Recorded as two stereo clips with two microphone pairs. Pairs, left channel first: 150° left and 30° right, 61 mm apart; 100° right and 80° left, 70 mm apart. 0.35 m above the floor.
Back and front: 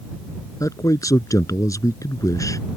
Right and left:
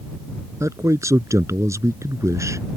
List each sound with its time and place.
0.6 s a man speaking: 125° left